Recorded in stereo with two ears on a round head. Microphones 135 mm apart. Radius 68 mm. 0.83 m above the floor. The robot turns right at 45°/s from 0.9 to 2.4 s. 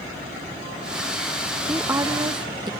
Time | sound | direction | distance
1.6 | a woman speaking | 165° right | ?